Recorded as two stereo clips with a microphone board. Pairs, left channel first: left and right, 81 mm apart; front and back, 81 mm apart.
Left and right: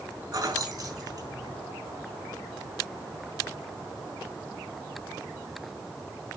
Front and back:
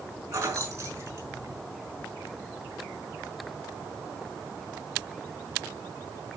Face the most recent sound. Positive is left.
turn(degrees=-130)